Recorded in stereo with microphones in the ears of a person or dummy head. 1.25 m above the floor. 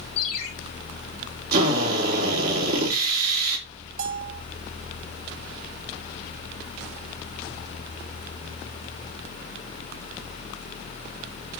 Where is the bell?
60° right (ahead or behind), 2.5 m.